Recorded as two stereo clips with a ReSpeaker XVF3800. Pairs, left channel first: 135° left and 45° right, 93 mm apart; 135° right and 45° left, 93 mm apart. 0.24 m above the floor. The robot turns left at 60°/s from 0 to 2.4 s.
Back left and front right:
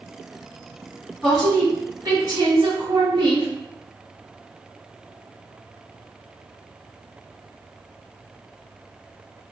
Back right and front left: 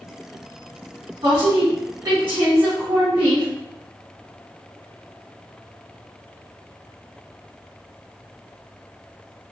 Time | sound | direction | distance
1.2 | a woman speaking | 50° left | 2.0 m